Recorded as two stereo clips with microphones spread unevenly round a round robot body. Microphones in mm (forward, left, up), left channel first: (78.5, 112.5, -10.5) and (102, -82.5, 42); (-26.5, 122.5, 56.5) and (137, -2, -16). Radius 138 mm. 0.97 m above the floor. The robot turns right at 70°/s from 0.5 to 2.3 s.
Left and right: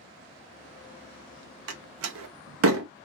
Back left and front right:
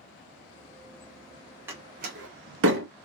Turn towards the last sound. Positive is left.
turn(degrees=-75)